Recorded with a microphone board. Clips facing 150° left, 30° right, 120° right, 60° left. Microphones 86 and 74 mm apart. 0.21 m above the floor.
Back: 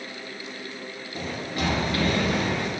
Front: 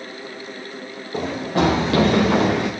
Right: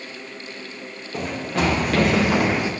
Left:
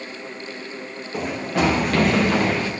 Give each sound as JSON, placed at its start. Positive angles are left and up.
{"t": 1.1, "sound": "running footsteps", "azimuth_deg": -20, "distance_m": 3.0}